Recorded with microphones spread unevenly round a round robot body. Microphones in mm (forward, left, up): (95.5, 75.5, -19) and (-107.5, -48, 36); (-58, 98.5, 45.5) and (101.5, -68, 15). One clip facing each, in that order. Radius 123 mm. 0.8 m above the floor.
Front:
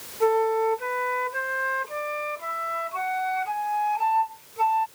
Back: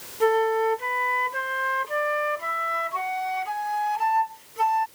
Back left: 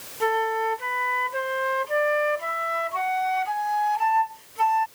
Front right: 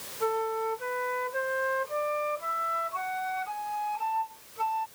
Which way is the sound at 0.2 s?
160° left.